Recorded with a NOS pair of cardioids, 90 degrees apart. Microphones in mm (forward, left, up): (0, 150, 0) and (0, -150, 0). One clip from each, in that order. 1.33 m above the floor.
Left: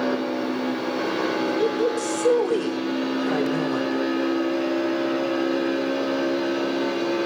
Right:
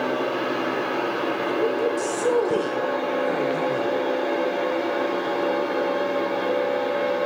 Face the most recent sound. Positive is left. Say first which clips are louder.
# even
turn(degrees=15)